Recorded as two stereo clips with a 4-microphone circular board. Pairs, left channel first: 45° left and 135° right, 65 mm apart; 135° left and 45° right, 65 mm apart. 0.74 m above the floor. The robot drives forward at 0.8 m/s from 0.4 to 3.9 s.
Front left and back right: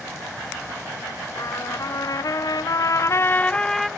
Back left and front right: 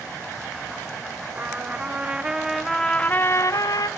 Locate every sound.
1.4 s a trumpet: 20° left, 1.6 m; by 3.9 s 135° left, 0.8 m